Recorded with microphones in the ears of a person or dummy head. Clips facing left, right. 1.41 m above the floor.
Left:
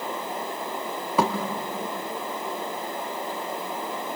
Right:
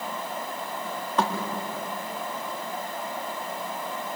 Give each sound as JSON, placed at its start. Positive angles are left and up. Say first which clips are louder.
{"t": 1.2, "sound": "a thud", "louder": "left 3 dB", "side_deg": 15, "distance_m": 1.1}